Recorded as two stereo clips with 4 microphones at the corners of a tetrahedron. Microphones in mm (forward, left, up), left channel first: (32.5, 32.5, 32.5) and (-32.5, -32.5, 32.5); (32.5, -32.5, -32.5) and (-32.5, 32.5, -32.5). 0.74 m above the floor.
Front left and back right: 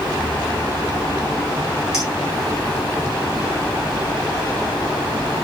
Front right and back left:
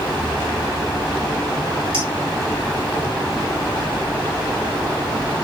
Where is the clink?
140° left, 7 m.